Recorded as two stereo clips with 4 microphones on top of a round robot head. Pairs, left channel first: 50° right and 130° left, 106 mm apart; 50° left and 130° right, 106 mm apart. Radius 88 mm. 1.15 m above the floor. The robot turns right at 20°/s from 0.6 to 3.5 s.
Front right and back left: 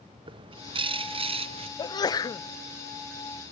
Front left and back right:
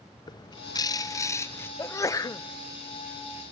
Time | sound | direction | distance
0.3 | a bird | 95° left | 0.7 m
1.8 | a sneeze | 10° right | 0.8 m